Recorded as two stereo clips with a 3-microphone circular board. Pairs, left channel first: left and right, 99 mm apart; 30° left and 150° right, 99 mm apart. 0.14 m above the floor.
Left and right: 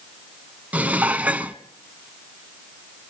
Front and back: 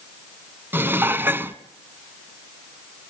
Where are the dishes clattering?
140° right, 0.8 m.